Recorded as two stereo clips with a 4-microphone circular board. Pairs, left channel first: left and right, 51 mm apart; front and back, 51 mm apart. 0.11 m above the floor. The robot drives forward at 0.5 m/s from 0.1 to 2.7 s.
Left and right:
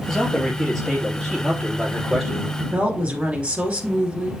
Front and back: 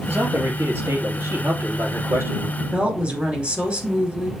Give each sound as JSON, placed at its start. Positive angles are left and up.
{"t": 0.1, "sound": "a man speaking", "azimuth_deg": 180, "distance_m": 2.0}
{"t": 2.6, "sound": "a woman speaking", "azimuth_deg": -130, "distance_m": 2.0}